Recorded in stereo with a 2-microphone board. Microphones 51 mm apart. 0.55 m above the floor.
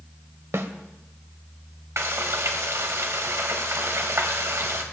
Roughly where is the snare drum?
Right.